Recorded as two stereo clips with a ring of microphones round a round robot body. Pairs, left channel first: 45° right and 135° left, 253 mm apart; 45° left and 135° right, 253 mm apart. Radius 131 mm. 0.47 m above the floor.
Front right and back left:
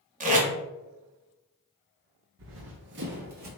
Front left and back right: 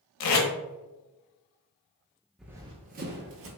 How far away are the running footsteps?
About 0.5 m.